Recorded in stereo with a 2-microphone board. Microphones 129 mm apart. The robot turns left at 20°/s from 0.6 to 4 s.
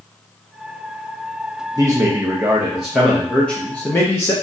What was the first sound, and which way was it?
A man speaking, 155° right.